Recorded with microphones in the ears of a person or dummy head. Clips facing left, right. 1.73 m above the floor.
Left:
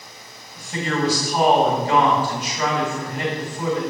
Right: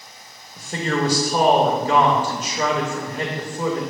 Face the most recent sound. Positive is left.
turn(degrees=-40)  # may be behind; listen again after turning